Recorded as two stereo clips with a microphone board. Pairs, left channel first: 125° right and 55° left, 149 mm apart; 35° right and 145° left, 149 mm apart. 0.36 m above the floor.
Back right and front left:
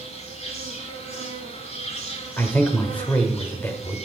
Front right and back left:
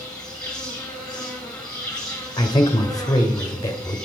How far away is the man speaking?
About 0.9 m.